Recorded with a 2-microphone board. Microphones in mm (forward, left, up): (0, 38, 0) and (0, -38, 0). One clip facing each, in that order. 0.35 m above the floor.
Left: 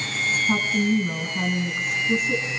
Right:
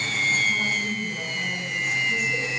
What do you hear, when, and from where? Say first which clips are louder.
0.5 s a woman speaking: left 5 dB; 55° left (ahead or behind), 3 m